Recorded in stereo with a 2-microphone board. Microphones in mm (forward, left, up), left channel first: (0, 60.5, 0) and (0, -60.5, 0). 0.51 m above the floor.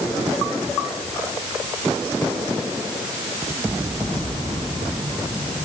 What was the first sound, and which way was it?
Only background noise.